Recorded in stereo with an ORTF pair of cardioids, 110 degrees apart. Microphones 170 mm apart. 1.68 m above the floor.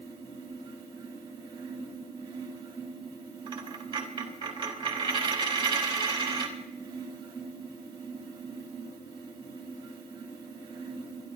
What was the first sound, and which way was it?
A fan, 30° right.